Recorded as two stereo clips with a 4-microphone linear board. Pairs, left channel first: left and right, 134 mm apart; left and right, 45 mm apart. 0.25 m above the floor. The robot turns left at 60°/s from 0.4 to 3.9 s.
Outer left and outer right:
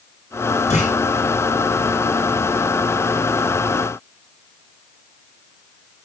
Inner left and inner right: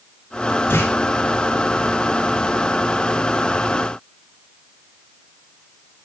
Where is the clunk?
55° left (ahead or behind), 3 m; by 0.9 s 65° left (ahead or behind), 3 m.